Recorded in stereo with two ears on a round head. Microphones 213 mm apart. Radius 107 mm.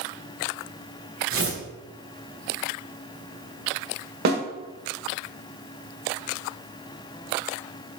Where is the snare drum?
45° right (ahead or behind), 1.4 m.